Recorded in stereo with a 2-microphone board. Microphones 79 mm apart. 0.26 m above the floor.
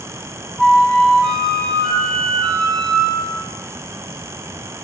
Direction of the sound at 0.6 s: 10° left (ahead or behind).